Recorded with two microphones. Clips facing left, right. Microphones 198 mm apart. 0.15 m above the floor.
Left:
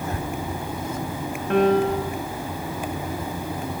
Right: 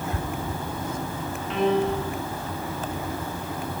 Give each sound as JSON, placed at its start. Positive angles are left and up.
{"t": 1.5, "sound": "a piano", "side_deg": 60, "distance_m": 5.5}